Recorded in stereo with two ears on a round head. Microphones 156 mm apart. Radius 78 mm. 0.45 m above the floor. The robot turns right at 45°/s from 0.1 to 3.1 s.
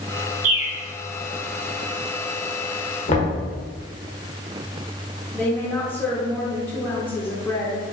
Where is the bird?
55° right (ahead or behind), 1.4 m; by 0.7 s 70° right (ahead or behind), 1.4 m.